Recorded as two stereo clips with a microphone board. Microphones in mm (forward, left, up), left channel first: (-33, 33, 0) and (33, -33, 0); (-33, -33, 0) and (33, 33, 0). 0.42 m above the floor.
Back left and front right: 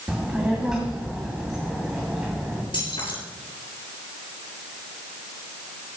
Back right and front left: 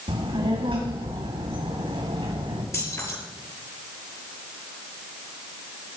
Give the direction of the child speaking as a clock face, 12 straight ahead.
11 o'clock.